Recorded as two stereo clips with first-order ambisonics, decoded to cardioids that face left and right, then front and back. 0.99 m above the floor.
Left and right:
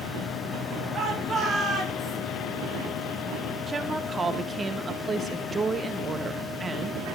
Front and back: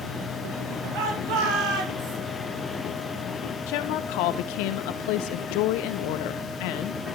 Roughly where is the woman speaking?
Ahead.